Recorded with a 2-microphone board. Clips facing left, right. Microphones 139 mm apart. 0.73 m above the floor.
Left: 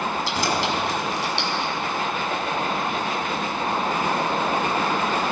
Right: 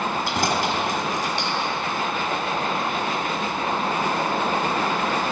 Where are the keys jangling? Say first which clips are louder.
Right 1 dB; 55° right (ahead or behind), 5 m; by 1.7 s 45° right (ahead or behind), 5.5 m.